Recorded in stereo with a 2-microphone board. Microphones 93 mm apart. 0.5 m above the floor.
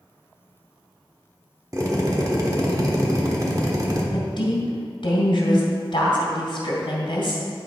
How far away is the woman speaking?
About 2.5 m.